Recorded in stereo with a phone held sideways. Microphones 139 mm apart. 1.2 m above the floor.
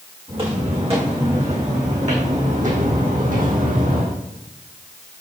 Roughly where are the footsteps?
Right.